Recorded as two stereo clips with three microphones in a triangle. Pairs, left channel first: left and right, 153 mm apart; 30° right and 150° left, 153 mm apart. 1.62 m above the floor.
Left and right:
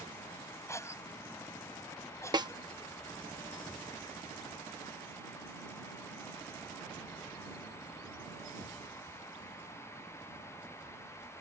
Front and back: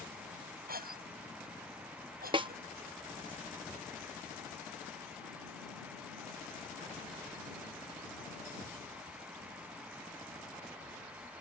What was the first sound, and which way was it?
A cough, 160° left.